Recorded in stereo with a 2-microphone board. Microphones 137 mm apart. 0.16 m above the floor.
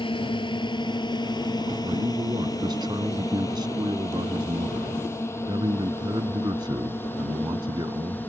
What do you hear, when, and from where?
0.0 s a drone: 40° left (ahead or behind); by 8.3 s 15° left (ahead or behind)
1.8 s a man speaking: 35° right (ahead or behind)